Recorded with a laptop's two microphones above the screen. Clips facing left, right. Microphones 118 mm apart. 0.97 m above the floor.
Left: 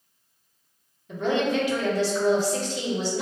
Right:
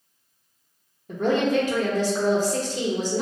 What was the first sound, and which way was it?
A woman speaking, 40° right (ahead or behind).